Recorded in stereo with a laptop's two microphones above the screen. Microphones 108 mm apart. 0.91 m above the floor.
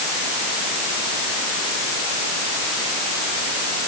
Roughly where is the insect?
No insect in this recording.